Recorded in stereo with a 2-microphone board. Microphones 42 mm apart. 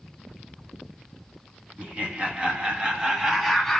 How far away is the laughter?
About 1.8 m.